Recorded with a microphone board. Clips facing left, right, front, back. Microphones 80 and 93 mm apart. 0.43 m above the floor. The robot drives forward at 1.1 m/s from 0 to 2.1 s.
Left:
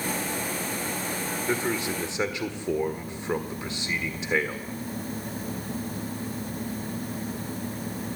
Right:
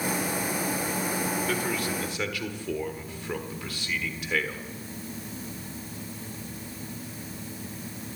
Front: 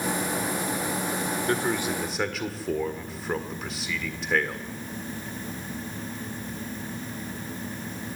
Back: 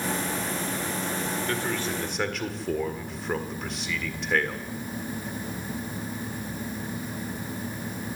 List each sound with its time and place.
1.5 s a man speaking: 40° left, 1.7 m; by 4.6 s 85° left, 1.5 m